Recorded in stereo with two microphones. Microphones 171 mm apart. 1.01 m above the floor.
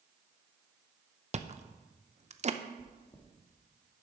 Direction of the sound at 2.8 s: 35° left (ahead or behind).